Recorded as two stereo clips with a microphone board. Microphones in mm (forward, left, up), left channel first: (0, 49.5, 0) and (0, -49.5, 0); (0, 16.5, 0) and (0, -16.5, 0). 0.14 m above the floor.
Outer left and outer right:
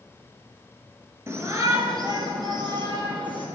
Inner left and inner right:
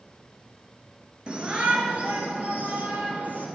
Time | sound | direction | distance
1.3 | a shout | 30° right (ahead or behind) | 2 m